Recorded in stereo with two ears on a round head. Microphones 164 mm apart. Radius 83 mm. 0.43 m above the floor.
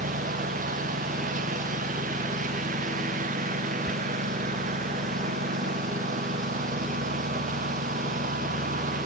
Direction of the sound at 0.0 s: 45° right (ahead or behind).